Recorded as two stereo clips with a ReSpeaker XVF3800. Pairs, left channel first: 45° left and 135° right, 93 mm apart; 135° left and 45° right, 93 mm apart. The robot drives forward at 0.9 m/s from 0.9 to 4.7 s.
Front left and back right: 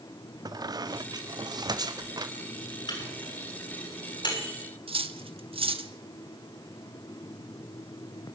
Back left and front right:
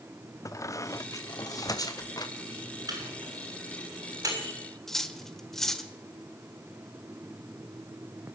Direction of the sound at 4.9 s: 140° right.